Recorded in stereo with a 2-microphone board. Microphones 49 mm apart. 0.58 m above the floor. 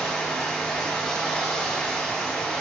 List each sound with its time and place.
0.0 s running water: 5° left (ahead or behind), 2.5 m